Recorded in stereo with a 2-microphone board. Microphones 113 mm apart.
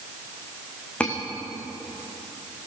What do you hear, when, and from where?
1.0 s cutlery clinking: 10° left (ahead or behind), 5 m